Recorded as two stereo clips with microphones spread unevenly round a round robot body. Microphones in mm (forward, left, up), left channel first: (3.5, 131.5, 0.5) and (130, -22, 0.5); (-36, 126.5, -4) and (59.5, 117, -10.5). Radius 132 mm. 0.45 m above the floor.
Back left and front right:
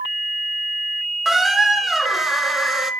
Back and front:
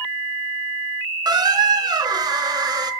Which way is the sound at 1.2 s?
40° left.